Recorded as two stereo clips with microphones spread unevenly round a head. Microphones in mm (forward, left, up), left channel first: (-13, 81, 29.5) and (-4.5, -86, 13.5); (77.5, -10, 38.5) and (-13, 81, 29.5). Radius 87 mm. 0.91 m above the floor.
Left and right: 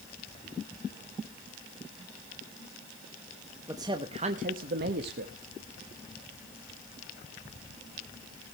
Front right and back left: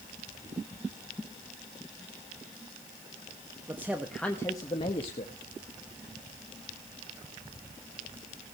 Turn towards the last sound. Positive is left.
turn(degrees=-85)